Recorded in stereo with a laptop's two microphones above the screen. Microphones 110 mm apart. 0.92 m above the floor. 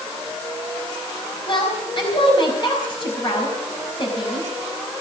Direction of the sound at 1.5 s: 45° left (ahead or behind).